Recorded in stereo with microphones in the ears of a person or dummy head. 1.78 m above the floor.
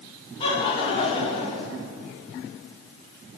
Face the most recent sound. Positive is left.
turn(degrees=25)  # may be behind; listen again after turning